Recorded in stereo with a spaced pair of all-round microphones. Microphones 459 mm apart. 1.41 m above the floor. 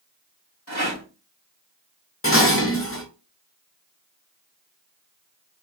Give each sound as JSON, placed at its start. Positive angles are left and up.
{"t": 0.7, "sound": "a rattle", "side_deg": 60, "distance_m": 2.0}
{"t": 2.2, "sound": "dishes clattering", "side_deg": 30, "distance_m": 0.9}